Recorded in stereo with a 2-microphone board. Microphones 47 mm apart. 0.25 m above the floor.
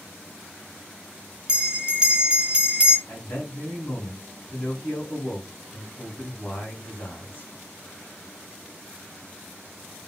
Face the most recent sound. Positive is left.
turn(degrees=45)  # may be behind; listen again after turning